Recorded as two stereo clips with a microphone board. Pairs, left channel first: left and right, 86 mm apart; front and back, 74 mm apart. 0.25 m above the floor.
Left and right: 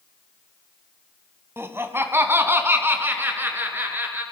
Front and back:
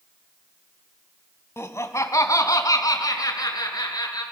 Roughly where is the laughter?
Ahead right.